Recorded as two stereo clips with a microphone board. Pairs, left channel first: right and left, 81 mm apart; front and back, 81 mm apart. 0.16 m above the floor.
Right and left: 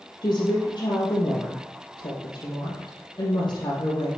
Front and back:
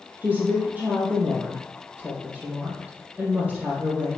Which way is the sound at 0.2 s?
110° right.